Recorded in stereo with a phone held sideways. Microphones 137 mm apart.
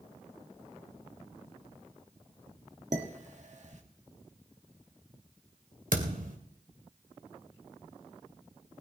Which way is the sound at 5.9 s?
80° right.